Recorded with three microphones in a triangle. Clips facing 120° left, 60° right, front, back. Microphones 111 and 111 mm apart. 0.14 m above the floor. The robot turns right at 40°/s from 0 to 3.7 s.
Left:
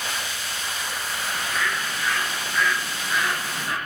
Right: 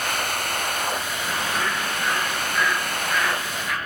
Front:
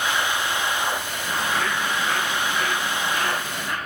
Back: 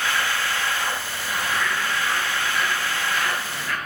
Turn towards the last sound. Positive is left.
turn(degrees=65)